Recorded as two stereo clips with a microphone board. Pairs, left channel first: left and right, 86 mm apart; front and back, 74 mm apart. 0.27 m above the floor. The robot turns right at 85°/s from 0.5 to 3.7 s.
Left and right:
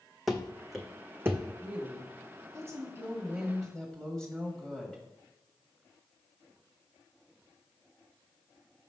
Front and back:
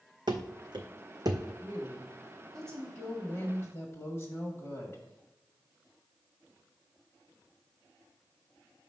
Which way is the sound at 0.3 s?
Straight behind.